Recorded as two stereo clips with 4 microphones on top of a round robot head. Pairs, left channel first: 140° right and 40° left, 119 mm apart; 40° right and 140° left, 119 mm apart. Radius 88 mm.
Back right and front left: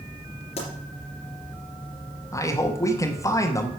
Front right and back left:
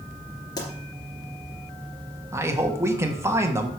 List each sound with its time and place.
0.6 s a pop: 100° right, 3 m
2.3 s a man speaking: 175° right, 1.2 m